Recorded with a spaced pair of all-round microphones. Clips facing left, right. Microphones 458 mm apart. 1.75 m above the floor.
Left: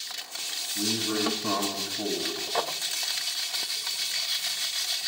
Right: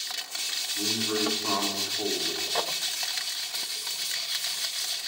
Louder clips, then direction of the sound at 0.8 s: Left 1 dB; 45° left (ahead or behind).